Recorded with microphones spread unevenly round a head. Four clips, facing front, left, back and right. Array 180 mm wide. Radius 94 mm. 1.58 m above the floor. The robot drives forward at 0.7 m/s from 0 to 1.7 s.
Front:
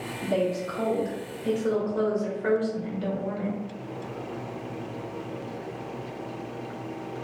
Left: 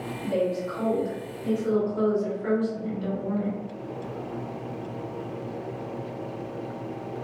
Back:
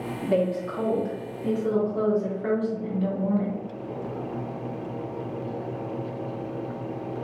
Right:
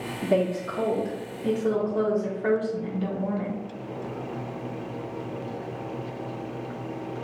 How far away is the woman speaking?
About 1.2 m.